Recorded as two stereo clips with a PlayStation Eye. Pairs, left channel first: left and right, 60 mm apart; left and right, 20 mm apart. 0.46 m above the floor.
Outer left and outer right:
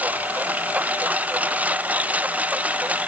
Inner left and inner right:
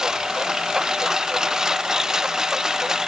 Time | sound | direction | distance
0.0 | a lawn mower | 25° right (ahead or behind) | ?